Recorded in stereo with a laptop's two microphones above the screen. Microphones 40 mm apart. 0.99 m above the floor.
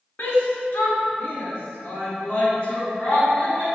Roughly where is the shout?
Left.